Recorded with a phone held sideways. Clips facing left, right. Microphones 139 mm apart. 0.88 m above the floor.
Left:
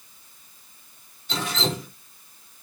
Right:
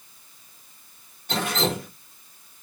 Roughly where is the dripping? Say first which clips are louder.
Right 3 dB; right.